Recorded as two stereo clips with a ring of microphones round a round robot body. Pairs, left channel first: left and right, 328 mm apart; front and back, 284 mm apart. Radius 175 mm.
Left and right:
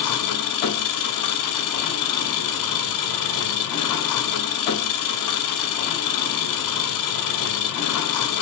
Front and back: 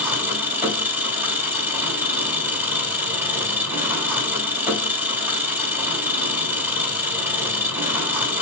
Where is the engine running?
100° left, 1.8 m.